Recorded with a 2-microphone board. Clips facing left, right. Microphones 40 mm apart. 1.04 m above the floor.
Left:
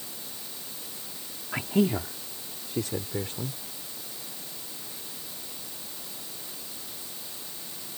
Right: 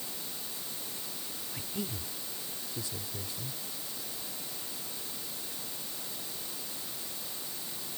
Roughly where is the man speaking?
Left.